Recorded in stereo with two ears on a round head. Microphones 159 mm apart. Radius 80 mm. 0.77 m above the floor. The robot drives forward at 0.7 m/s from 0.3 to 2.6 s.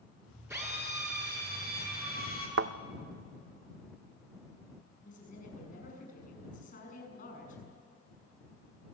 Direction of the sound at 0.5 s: 15° right (ahead or behind).